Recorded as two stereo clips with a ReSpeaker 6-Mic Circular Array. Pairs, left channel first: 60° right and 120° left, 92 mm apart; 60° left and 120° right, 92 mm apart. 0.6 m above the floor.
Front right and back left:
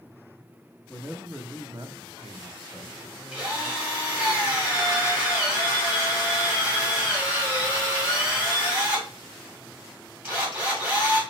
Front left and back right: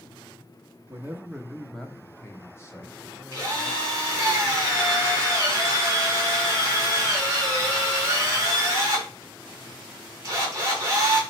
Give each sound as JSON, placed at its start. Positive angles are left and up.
{"t": 0.9, "sound": "a man speaking", "azimuth_deg": -150, "distance_m": 0.7}
{"t": 3.3, "sound": "a drill", "azimuth_deg": -170, "distance_m": 2.0}